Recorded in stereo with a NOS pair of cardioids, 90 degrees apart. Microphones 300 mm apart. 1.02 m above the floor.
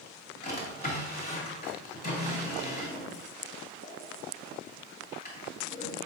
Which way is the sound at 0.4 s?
30° left.